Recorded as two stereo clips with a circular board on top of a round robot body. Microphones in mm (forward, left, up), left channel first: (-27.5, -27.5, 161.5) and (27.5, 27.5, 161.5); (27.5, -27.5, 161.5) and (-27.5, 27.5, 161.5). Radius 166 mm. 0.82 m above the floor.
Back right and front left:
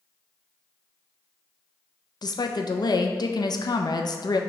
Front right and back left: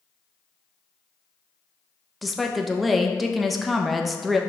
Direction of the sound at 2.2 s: 135° right.